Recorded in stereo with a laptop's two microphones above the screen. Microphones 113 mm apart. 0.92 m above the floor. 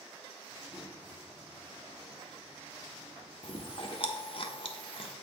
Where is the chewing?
50° left (ahead or behind), 1.1 m.